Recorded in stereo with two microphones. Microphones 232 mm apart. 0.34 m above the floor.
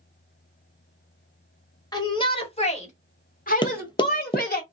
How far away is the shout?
About 1.2 m.